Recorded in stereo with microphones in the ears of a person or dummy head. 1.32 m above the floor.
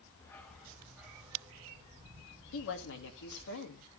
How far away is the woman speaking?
About 2 m.